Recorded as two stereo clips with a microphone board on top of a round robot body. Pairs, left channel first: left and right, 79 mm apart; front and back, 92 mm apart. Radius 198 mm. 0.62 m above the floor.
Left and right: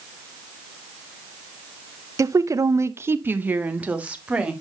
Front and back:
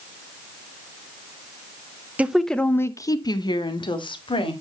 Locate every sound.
2.2 s a woman speaking: 110° right, 0.9 m; by 4.5 s 15° right, 2 m